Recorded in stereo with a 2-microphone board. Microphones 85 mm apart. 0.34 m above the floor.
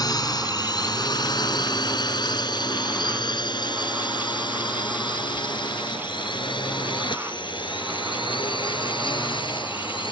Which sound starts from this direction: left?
A drone, at 0.0 s.